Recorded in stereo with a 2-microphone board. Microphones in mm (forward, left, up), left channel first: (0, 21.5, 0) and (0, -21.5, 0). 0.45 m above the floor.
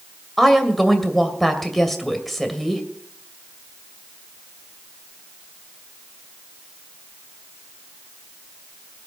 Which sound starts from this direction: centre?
A woman speaking, at 0.4 s.